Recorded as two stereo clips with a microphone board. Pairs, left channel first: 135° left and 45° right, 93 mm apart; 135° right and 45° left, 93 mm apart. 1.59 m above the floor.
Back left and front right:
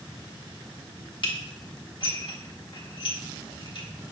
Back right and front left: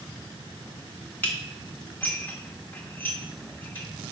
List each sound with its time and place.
1.2 s dishes clattering: 160° left, 1.7 m